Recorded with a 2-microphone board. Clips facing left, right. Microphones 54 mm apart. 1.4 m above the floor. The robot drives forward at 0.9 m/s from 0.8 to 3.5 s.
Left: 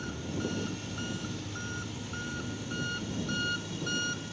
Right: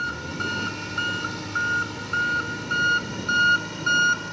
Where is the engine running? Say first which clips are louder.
Right 8 dB; 80° right; by 4.3 s 70° right (ahead or behind).